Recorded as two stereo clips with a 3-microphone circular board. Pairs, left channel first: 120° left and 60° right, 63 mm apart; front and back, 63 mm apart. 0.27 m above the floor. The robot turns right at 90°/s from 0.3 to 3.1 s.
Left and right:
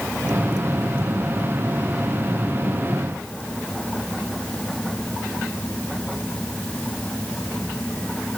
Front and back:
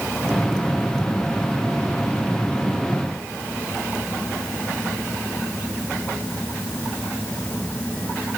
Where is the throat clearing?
I don't hear throat clearing.